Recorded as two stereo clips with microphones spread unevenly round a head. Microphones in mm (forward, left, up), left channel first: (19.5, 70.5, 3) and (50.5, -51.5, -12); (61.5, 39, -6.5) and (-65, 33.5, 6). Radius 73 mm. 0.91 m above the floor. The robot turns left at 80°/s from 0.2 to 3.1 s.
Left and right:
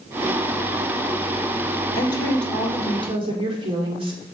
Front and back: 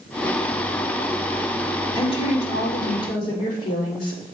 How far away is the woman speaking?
About 2.0 m.